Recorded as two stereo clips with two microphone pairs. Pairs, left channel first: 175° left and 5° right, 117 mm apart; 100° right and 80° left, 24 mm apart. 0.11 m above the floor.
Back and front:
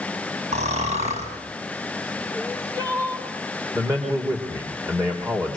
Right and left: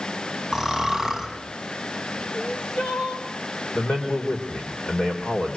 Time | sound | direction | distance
0.5 | snoring | 5° left | 6.5 m
2.3 | crying | 60° right | 7 m
3.8 | a man speaking | 65° right | 5.5 m